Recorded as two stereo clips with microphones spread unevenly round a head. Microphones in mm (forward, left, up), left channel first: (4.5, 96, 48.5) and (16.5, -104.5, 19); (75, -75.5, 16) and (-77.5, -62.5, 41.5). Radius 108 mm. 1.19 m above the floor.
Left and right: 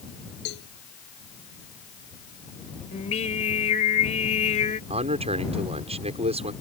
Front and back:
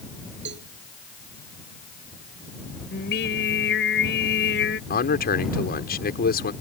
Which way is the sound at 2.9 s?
35° left.